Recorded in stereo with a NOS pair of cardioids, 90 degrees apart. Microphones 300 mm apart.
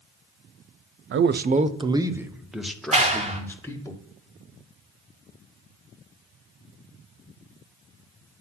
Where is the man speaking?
45° right, 0.6 m; by 3.9 s 10° left, 1.8 m.